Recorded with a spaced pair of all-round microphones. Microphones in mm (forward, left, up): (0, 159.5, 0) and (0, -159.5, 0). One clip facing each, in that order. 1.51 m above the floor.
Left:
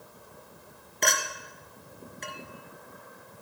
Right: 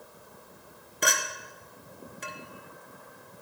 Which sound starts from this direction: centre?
A clink, at 1.0 s.